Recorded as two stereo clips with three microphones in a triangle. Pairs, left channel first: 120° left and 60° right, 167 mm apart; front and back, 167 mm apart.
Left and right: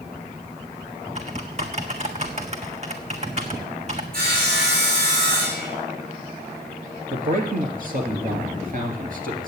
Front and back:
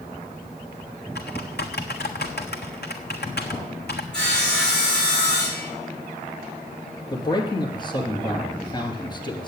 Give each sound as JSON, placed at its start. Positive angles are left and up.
{"t": 1.1, "sound": "typing on a keyboard", "azimuth_deg": -10, "distance_m": 1.3}
{"t": 4.1, "sound": "sawing", "azimuth_deg": -85, "distance_m": 5.5}
{"t": 7.1, "sound": "a man speaking", "azimuth_deg": -55, "distance_m": 2.5}